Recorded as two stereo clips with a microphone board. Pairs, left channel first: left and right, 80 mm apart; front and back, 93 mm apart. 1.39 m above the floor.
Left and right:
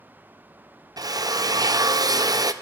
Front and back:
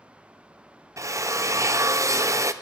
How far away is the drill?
About 0.6 m.